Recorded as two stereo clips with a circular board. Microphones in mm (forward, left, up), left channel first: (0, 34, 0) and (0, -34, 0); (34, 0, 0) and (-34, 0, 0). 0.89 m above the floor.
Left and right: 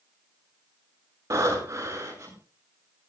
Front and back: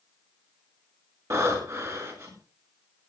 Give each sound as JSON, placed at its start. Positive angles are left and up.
{"t": 1.3, "sound": "breathing", "azimuth_deg": -135, "distance_m": 7.0}